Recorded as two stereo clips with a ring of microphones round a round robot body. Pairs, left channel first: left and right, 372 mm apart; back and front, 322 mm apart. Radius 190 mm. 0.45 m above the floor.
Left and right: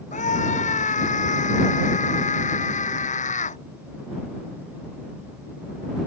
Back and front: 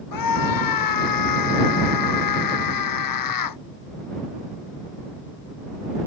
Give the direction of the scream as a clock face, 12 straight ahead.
7 o'clock.